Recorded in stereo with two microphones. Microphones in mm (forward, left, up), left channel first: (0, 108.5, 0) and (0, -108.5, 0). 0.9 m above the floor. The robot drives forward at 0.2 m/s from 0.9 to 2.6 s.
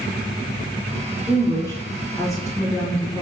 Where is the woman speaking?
15° left (ahead or behind), 0.8 m.